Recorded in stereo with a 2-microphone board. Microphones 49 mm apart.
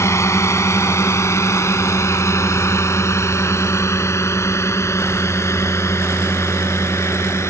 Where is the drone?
80° left; by 7.5 s 75° left (ahead or behind).